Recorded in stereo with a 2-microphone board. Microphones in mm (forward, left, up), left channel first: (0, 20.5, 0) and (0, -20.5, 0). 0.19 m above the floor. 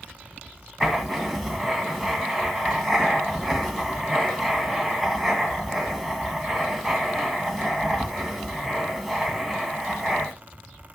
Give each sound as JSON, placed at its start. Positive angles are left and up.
{"t": 0.8, "sound": "writing", "side_deg": 0, "distance_m": 1.6}